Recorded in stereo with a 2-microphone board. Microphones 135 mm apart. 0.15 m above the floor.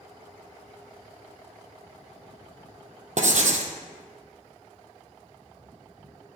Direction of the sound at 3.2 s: 65° right (ahead or behind).